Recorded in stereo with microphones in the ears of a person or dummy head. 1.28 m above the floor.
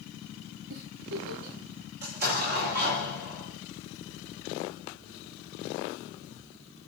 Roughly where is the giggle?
Right.